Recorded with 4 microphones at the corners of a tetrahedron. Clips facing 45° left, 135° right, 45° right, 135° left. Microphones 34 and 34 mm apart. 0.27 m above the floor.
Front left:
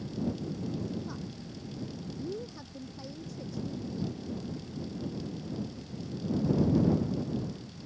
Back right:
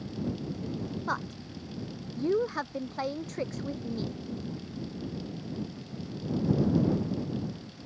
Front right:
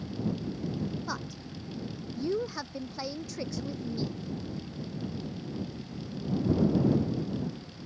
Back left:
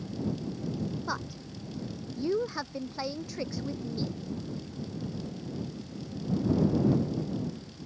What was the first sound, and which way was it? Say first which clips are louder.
A woman speaking: back right 8 dB, back left 2 dB; 145° right.